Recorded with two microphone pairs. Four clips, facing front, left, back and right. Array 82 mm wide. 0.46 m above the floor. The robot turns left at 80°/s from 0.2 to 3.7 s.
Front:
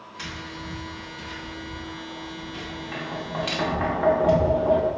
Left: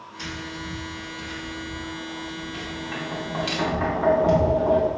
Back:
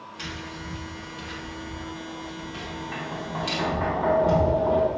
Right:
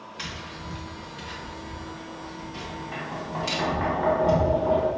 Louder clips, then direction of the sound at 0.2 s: Left 5 dB, front 1 dB; 60° right.